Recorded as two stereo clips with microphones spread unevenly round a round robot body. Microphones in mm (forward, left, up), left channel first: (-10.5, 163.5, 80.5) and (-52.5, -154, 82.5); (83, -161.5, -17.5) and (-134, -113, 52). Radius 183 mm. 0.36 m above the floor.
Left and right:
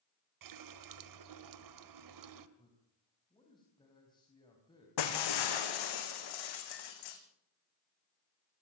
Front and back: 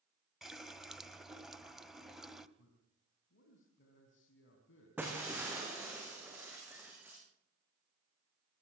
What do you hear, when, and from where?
0.4 s a running tap: 95° right, 1.6 m
2.6 s a man speaking: 5° left, 3.5 m
5.0 s breaking glass: 85° left, 3 m